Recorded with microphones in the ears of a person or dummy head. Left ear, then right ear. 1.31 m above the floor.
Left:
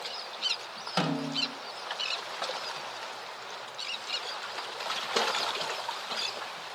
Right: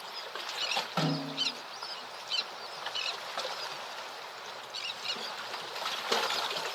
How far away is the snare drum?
About 4 m.